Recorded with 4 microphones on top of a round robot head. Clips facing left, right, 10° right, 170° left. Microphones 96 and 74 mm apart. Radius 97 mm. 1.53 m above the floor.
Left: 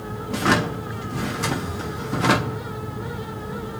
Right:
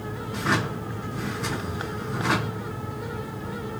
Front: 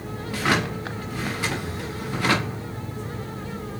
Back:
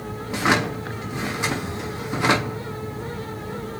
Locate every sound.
0.3 s a drawer: 100° left, 1.3 m